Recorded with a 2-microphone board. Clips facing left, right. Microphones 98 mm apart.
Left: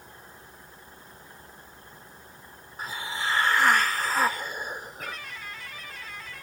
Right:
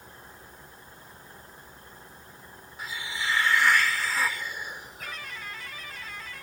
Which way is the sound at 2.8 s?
45° left (ahead or behind).